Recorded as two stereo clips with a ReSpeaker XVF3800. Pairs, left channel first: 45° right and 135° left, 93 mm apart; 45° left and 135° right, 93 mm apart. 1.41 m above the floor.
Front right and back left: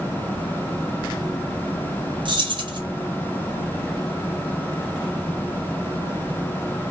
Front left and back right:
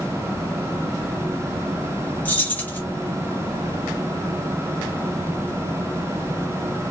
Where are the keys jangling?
115° left, 0.7 m.